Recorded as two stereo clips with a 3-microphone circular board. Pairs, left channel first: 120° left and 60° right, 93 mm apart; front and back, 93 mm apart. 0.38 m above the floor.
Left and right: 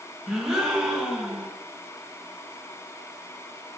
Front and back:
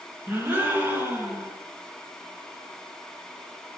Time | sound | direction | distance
0.3 | a gasp | 140° right | 0.7 m